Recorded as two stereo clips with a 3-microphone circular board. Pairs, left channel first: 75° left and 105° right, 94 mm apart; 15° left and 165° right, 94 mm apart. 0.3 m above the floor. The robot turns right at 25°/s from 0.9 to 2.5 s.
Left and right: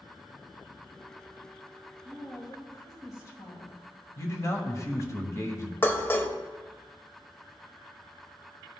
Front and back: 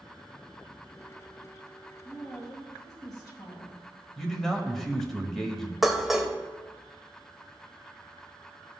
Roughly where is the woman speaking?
Ahead left.